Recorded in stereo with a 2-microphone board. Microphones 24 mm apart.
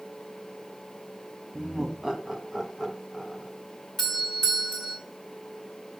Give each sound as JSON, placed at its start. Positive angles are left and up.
{"t": 1.5, "sound": "laughter", "side_deg": -25, "distance_m": 1.8}
{"t": 4.0, "sound": "a doorbell", "side_deg": 15, "distance_m": 3.0}